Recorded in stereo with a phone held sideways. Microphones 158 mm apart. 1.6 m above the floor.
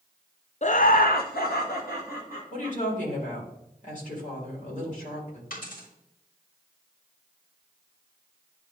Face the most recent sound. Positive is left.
turn(degrees=70)  # may be behind; listen again after turning